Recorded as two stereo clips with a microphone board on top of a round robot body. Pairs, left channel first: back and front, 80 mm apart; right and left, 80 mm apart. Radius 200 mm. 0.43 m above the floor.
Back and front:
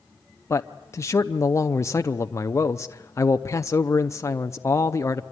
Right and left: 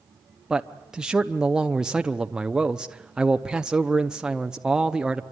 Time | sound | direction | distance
0.5 | a man speaking | 165° left | 1.0 m